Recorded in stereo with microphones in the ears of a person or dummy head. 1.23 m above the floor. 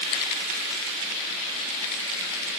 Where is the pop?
I don't hear a pop.